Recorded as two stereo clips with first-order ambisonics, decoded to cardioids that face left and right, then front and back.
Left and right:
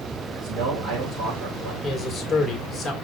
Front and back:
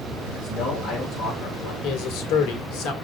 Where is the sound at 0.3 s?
45° right, 4 m.